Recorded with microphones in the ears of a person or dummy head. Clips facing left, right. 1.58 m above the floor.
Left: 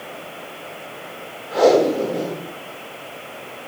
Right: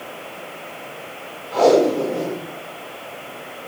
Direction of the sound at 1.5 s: 10° left (ahead or behind).